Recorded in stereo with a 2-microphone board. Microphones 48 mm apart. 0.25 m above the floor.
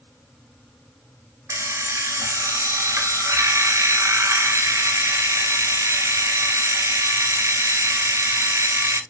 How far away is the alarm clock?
About 1.3 m.